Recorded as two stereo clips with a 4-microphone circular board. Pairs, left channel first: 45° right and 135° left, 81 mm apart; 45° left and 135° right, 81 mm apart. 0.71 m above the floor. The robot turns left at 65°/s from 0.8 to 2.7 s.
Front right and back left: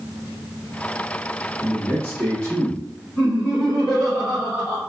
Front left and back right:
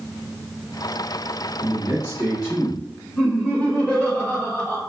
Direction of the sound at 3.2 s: Straight ahead.